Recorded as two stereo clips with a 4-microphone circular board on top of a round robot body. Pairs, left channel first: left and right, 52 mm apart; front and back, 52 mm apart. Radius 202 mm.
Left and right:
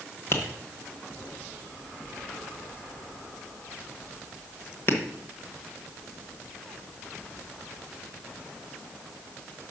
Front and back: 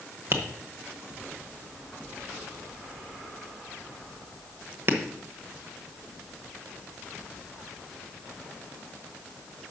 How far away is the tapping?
About 1.1 m.